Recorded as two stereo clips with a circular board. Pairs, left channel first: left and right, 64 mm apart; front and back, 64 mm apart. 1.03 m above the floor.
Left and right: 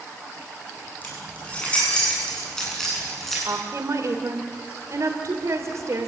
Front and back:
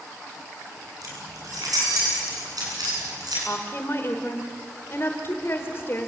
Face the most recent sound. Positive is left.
turn(degrees=-50)